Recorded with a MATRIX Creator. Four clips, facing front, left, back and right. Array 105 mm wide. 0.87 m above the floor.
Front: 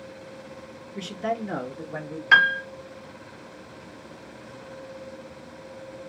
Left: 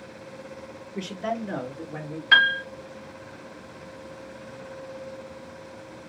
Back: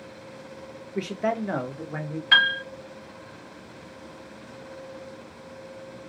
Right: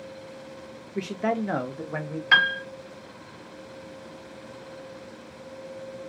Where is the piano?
20° right, 0.8 m.